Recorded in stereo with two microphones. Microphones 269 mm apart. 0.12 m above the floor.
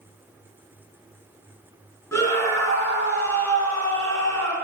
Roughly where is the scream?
Centre.